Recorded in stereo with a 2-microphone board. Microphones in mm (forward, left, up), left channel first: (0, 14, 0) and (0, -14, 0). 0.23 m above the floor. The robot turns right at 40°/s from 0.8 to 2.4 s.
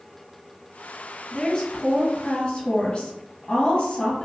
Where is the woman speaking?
50° left, 1.7 m; by 4.2 s 95° left, 1.7 m.